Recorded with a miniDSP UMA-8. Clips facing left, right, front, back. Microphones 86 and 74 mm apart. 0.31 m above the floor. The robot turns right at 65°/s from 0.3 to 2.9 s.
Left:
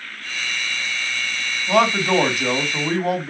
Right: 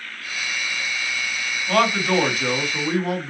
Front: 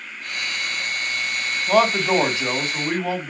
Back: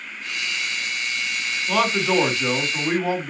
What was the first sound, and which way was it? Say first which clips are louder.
A man speaking: left 2 dB, front 3 dB; 15° left.